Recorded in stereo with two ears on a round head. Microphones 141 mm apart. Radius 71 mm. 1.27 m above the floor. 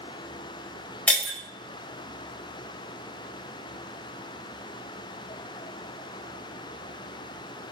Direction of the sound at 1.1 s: 10° left (ahead or behind).